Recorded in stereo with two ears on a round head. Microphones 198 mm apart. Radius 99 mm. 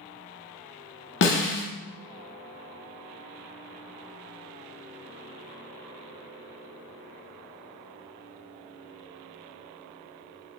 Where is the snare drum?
55° left (ahead or behind), 0.7 m.